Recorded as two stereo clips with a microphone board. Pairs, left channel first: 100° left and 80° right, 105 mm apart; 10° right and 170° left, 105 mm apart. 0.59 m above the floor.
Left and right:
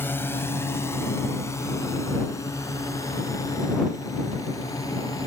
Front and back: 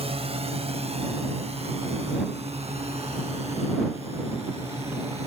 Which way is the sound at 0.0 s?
170° left.